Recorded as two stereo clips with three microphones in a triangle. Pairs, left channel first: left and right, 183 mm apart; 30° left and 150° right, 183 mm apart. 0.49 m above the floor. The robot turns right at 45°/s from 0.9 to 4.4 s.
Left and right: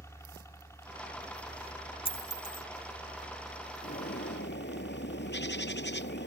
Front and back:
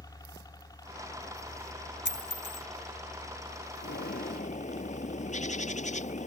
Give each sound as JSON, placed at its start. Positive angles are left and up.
{"t": 0.0, "sound": "a helicopter", "azimuth_deg": 45}
{"t": 2.0, "sound": "a dropped coin", "azimuth_deg": 30}
{"t": 3.8, "sound": "a bird", "azimuth_deg": 50}